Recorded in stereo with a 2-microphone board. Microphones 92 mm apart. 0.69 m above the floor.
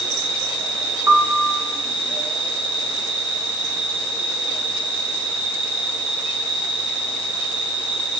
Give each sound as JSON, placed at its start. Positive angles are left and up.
{"t": 0.0, "sound": "an insect", "side_deg": 80, "distance_m": 2.0}
{"t": 1.1, "sound": "a piano", "side_deg": -30, "distance_m": 1.2}